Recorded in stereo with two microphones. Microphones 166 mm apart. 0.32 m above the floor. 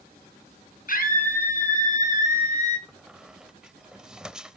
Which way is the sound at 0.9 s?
60° left (ahead or behind).